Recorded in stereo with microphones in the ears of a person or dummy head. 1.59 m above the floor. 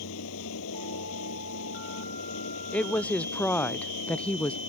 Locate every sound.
0.0 s a fan: 80° left
2.7 s a woman speaking: 5° left (ahead or behind)